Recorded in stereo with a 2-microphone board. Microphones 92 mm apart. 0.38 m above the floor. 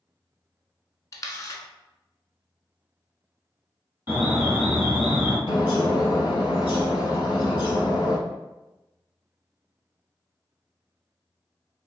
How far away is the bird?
About 1.0 m.